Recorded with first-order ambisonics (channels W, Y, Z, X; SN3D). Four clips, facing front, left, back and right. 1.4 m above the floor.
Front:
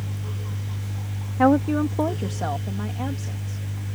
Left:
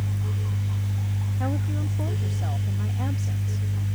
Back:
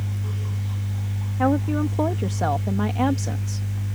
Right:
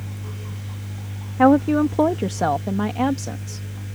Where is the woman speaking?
75° right; by 3.6 s 140° right.